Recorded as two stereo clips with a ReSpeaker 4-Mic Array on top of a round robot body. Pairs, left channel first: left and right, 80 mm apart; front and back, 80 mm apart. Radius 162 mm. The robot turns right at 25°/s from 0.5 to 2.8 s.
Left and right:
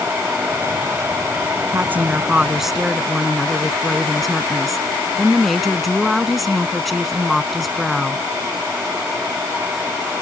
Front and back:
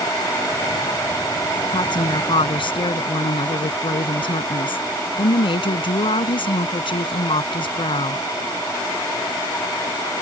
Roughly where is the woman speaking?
Ahead right.